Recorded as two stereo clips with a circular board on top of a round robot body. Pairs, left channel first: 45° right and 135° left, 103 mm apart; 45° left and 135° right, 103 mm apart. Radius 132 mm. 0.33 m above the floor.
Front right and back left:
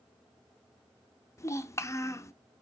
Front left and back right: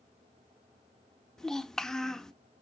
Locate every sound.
1.4 s a child speaking: 35° right, 0.7 m